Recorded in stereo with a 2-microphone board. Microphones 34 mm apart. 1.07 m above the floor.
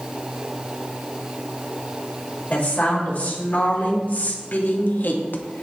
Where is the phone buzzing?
I don't hear a phone buzzing.